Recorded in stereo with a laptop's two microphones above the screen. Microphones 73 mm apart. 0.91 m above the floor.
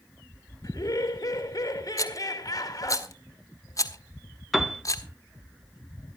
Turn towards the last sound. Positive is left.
turn(degrees=0)  # may be behind; listen again after turning